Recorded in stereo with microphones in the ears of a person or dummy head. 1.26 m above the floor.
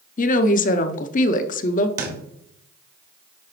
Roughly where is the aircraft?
No aircraft in this recording.